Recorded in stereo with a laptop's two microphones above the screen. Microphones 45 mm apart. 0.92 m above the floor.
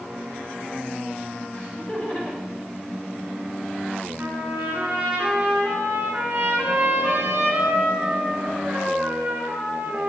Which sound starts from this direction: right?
A trumpet, at 4.2 s.